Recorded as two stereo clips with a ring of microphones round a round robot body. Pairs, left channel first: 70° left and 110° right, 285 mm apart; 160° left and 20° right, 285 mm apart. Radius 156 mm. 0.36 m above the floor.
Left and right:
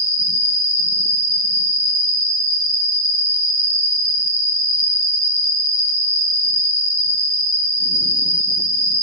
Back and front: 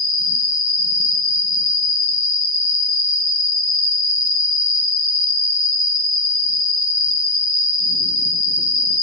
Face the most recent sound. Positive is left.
turn(degrees=130)